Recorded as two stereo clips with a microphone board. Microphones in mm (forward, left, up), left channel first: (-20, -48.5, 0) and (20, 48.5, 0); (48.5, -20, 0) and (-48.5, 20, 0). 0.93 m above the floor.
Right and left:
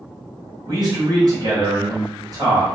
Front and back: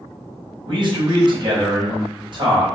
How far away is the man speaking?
About 1.1 m.